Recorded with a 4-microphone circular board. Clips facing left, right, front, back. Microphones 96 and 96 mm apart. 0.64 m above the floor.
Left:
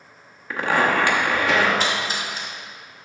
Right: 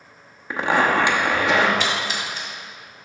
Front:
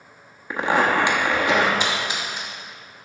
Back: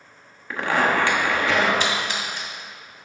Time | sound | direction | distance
0.5 | a zipper | 50° right | 0.9 m
1.8 | a splash | 70° left | 1.6 m